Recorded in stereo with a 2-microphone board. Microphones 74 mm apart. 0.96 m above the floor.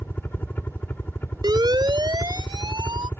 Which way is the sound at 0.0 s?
25° left (ahead or behind).